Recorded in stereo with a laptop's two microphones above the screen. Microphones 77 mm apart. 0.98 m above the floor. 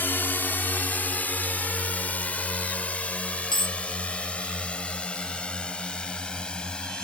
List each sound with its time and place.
0.0 s a drone: 25° left (ahead or behind); by 7.0 s 10° left (ahead or behind)
3.5 s a dropped coin: 85° left